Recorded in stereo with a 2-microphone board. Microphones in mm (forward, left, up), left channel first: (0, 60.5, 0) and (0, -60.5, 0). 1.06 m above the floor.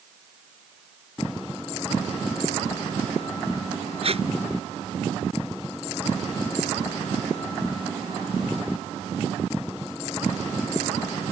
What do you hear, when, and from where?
4.0 s tape being pulled: 55° right (ahead or behind)